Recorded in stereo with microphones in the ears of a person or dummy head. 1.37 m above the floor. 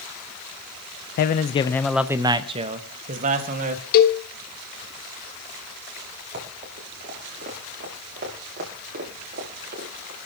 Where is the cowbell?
55° left (ahead or behind), 1.6 m.